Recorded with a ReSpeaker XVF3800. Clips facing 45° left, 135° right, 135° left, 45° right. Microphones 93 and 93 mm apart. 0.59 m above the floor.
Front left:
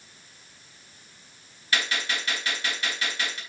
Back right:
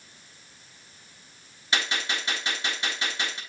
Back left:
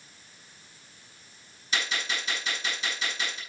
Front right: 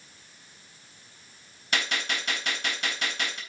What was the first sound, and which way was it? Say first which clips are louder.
A gunshot: even, front right 2 dB; 70° right.